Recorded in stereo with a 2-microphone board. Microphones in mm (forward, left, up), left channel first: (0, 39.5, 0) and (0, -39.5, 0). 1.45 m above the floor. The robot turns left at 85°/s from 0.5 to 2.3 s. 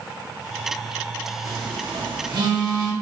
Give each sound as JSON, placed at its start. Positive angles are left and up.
{"t": 1.4, "sound": "a phone buzzing", "side_deg": -40, "distance_m": 0.9}